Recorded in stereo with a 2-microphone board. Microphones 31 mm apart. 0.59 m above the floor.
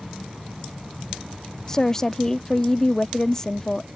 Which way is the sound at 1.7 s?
15° left (ahead or behind).